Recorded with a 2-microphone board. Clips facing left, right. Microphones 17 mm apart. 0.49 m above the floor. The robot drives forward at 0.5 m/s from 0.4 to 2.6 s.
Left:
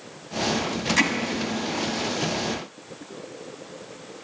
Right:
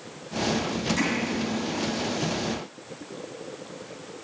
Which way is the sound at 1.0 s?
30° left (ahead or behind).